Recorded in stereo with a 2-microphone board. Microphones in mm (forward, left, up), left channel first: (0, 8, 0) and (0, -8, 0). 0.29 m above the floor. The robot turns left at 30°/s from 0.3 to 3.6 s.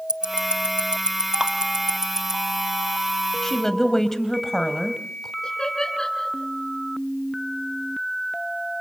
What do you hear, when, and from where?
0.1 s ticking: 75° right (ahead or behind), 1.0 m; by 2.4 s 35° right (ahead or behind), 1.0 m
1.4 s dripping: 35° right (ahead or behind), 1.2 m; by 1.5 s 30° right (ahead or behind), 1.2 m
3.4 s a woman speaking: 25° left (ahead or behind), 1.7 m
5.4 s laughter: 65° left (ahead or behind), 4 m